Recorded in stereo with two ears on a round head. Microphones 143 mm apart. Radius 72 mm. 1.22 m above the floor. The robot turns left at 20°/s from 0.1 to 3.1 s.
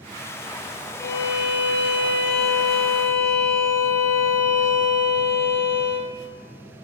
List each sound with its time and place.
1.0 s a violin: 105° left, 0.8 m; by 6.1 s 65° left, 0.8 m